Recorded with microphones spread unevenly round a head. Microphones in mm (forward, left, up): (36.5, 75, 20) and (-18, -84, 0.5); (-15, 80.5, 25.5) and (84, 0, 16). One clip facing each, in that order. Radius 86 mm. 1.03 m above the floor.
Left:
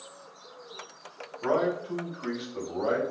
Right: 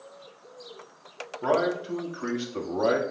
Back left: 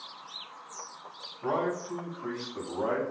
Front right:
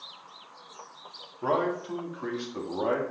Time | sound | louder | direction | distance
1.4 | a man speaking | right 2 dB, front right 3 dB | 65° right | 2 m